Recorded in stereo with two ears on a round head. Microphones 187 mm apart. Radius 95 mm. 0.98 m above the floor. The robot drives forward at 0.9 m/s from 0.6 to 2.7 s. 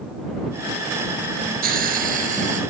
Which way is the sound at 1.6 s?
45° right (ahead or behind).